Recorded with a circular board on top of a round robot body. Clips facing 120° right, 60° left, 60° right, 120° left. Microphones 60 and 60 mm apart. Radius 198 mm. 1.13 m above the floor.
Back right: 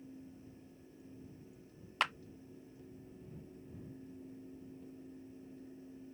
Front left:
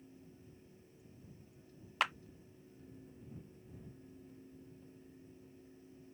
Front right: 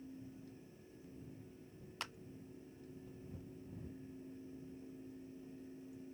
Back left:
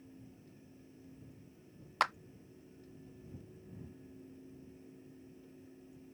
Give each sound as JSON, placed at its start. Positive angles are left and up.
{"t": 2.0, "sound": "a clap", "azimuth_deg": 150}